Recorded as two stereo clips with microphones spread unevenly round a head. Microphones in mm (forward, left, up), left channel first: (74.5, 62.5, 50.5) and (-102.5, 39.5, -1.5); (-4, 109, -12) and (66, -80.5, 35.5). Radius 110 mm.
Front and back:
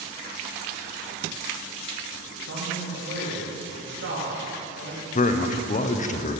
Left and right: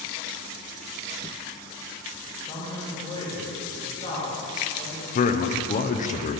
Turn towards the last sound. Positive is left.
turn(degrees=65)